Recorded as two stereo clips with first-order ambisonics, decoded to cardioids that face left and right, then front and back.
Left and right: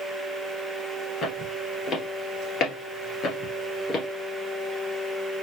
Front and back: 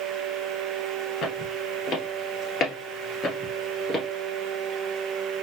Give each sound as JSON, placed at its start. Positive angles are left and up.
{"t": 1.2, "sound": "footsteps", "azimuth_deg": 40, "distance_m": 2.5}